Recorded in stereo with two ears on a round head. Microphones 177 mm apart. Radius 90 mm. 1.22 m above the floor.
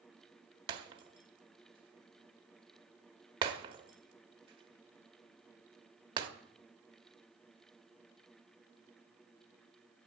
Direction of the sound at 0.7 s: 25° right (ahead or behind).